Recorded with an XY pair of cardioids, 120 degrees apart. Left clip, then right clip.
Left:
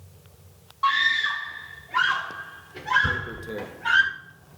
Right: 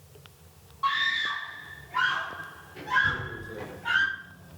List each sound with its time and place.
0.8 s a scream: 30° left, 3 m; by 4.0 s 50° left, 7 m
3.0 s tearing paper: 65° left, 1.4 m